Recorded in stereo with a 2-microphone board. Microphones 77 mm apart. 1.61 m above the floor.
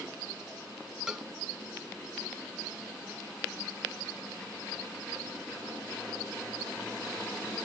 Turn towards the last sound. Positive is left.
turn(degrees=-10)  # may be behind; listen again after turning